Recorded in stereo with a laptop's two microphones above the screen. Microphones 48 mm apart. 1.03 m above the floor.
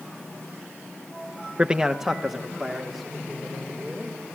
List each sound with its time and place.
1.6 s a man speaking: 25° right (ahead or behind), 0.5 m; by 4.4 s 5° left (ahead or behind), 5 m